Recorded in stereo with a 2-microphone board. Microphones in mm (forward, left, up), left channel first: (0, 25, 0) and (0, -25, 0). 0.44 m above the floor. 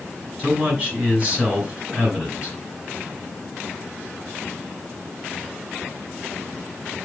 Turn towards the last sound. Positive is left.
turn(degrees=-25)  # may be behind; listen again after turning